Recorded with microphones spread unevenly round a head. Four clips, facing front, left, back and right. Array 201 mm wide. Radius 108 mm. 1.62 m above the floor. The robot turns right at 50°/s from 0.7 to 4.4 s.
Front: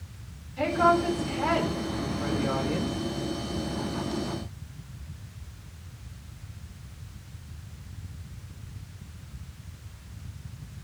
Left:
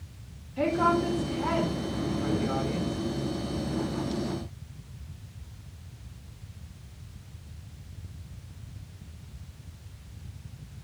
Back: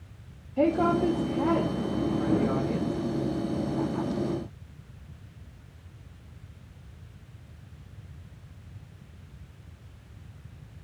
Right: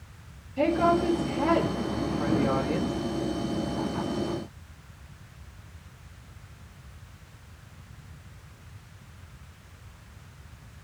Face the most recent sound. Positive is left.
turn(degrees=10)